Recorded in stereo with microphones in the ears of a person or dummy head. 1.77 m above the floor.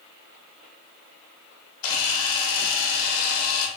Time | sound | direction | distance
1.8 | a camera shutter | 55° left (ahead or behind) | 1.5 m